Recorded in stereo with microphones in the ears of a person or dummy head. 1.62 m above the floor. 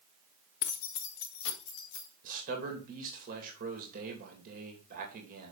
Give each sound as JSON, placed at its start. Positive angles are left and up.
{"t": 0.6, "sound": "keys jangling", "side_deg": 45, "distance_m": 0.6}
{"t": 2.2, "sound": "a man speaking", "side_deg": -40, "distance_m": 2.5}